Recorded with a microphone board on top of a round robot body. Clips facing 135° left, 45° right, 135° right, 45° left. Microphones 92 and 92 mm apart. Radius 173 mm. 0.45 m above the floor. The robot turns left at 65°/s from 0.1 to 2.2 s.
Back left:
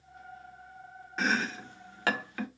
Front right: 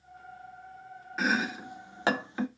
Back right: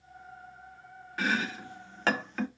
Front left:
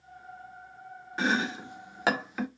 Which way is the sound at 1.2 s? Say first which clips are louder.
Front right 1 dB, front left 2 dB; 35° left.